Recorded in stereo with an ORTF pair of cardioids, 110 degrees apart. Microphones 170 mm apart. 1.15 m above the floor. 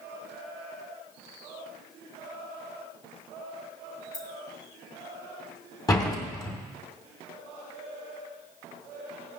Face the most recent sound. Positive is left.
turn(degrees=20)